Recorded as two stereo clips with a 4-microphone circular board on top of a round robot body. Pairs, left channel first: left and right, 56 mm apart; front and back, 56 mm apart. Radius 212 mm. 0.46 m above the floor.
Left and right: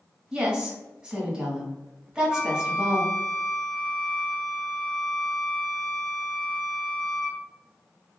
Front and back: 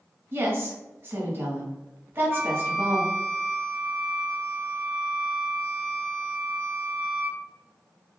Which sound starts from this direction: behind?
A woman speaking, at 0.3 s.